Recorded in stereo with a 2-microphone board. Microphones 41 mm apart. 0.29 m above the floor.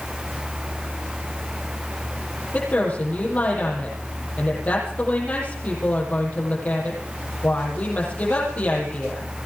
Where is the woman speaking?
35° left (ahead or behind), 9.5 m.